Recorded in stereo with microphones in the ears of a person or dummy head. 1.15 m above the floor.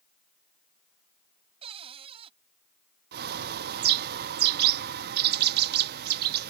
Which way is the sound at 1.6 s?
30° right (ahead or behind).